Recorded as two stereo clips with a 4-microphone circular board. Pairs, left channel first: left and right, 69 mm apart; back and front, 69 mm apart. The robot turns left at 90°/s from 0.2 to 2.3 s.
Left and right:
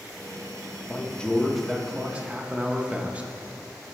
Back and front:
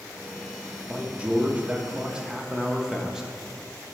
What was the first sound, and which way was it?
A man speaking, 60° left.